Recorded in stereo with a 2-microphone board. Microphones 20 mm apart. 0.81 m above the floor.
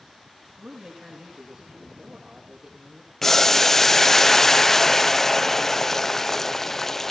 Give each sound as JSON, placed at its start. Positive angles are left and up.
{"t": 0.6, "sound": "a man speaking", "side_deg": -70, "distance_m": 9.5}
{"t": 3.2, "sound": "boiling", "side_deg": 20, "distance_m": 0.7}